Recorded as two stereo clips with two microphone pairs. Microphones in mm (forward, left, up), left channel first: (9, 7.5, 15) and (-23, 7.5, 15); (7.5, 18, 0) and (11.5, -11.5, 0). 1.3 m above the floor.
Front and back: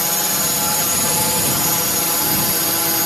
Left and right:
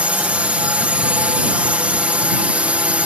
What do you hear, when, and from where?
0.0 s a drone: 90° right